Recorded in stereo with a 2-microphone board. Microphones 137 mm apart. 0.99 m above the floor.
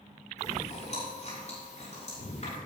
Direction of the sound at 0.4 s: 50° left (ahead or behind).